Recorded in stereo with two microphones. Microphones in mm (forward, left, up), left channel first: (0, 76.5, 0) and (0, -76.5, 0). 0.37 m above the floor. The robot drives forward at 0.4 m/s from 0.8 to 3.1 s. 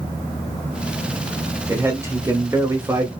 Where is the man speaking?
15° right (ahead or behind), 0.8 m.